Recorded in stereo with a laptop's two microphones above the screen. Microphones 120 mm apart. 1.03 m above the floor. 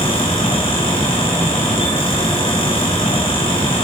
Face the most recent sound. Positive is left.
turn(degrees=50)  # may be behind; listen again after turning